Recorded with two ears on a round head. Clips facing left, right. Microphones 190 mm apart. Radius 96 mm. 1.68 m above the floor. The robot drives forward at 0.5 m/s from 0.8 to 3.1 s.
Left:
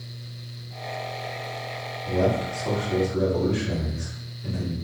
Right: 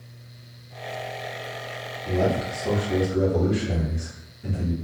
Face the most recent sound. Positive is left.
turn(degrees=-25)  # may be behind; listen again after turning